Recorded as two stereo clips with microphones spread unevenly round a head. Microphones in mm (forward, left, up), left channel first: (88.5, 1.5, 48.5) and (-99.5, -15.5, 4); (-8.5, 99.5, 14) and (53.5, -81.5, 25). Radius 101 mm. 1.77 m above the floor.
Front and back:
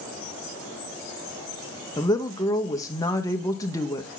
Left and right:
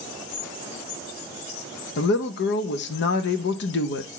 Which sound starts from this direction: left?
A woman speaking, at 2.0 s.